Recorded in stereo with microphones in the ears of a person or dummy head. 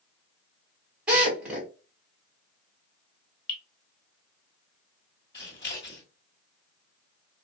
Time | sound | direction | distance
1.1 | a drill | 5° right (ahead or behind) | 2.0 m
3.5 | dripping | 25° left (ahead or behind) | 1.8 m
5.3 | scissors | 20° left (ahead or behind) | 1.7 m